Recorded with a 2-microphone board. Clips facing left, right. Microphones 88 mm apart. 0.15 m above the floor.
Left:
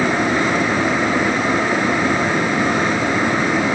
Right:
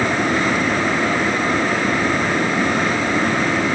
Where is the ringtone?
No ringtone in this recording.